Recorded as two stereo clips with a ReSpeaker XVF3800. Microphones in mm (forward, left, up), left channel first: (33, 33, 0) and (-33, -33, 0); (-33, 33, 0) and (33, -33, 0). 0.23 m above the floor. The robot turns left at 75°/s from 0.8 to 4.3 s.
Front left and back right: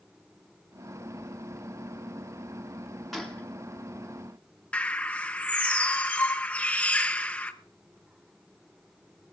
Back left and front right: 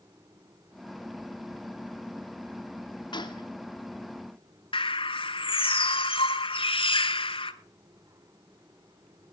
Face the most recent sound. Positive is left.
turn(degrees=120)